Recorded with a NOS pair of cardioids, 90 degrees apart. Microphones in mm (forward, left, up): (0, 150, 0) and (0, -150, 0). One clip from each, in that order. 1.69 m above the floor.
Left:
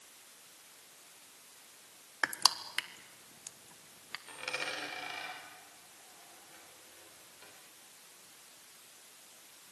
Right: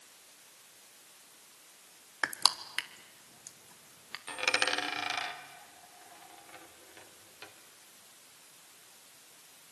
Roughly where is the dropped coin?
Right.